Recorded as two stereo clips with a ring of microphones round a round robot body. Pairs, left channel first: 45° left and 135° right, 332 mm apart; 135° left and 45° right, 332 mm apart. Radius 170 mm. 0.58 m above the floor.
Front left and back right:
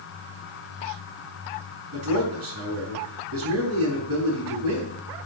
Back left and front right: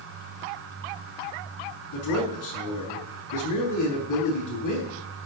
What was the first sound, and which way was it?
A man speaking, 175° left.